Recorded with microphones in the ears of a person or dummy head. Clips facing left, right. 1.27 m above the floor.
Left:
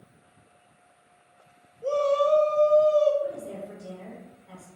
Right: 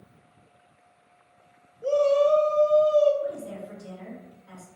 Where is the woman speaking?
70° right (ahead or behind), 1.9 m.